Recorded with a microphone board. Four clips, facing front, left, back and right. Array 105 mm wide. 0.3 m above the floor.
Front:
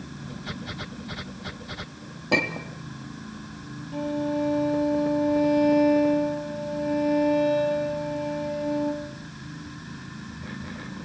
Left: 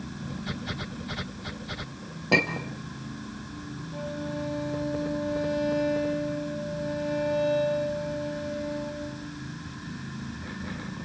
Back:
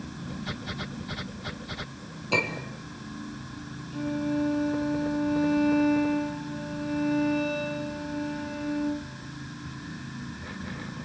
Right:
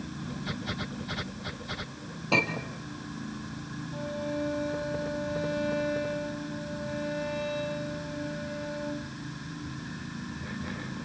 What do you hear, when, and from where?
2.3 s a clink: 50° left, 3.5 m
3.9 s a violin: 15° left, 6.5 m